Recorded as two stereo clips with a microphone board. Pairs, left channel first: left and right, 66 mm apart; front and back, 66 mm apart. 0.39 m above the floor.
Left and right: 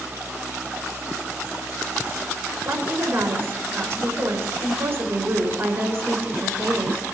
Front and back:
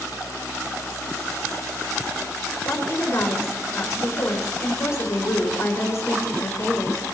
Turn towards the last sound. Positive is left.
turn(degrees=-45)